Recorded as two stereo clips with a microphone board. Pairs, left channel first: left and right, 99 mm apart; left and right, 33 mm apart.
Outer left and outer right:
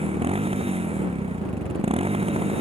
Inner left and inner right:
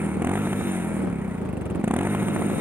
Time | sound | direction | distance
0.0 | a motorcycle | 85° right | ?